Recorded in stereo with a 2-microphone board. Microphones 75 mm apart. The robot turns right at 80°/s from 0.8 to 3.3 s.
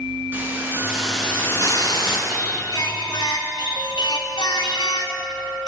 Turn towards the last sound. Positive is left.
turn(degrees=100)